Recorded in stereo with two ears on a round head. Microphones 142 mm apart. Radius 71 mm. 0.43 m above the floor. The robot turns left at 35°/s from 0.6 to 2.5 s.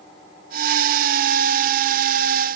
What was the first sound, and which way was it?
Only background noise.